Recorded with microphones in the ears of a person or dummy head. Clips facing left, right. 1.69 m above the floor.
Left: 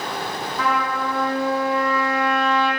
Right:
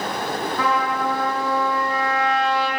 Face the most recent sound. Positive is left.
turn(degrees=-55)  # may be behind; listen again after turning